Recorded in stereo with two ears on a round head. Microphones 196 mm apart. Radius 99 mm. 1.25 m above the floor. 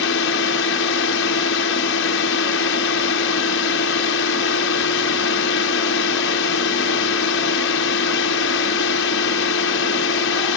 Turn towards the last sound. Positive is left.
turn(degrees=60)  # may be behind; listen again after turning